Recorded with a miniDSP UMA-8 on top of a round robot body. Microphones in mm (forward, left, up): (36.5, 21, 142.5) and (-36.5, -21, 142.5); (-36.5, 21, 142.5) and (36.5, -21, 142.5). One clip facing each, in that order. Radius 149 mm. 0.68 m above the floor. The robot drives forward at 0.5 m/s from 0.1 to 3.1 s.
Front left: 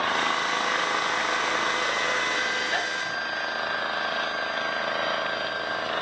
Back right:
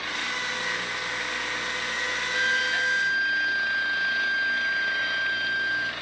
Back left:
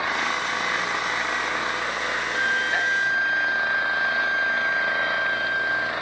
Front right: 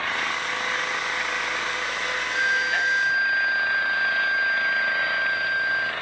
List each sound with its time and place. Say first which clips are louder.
0.0 s an engine running: front left 7 dB, back left 2 dB; 75° left
2.3 s a violin: back right 1 dB, front right 1 dB; 110° right